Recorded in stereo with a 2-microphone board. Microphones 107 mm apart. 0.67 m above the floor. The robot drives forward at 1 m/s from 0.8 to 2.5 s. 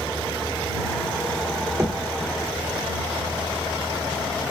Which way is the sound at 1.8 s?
25° right (ahead or behind).